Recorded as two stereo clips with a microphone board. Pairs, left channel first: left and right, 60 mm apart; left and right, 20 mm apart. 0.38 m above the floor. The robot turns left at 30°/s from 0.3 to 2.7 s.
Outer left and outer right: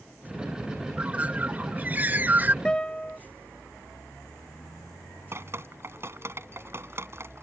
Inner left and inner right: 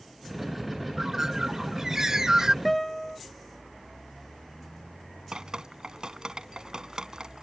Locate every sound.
1.0 s a bird: 50° right; by 2.5 s 95° right
2.6 s a guitar: 15° left (ahead or behind)
5.3 s dripping: 45° right (ahead or behind)